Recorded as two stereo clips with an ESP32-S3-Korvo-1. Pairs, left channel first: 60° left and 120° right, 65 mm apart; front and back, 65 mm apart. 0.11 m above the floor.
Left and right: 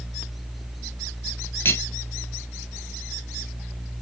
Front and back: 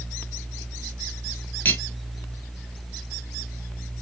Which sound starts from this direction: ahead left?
Cutlery clinking, at 1.6 s.